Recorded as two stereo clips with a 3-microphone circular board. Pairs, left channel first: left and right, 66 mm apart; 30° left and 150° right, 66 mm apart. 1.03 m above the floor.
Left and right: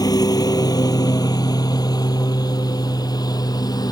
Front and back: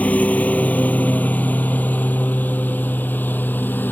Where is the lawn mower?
100° left; by 3.9 s 90° left.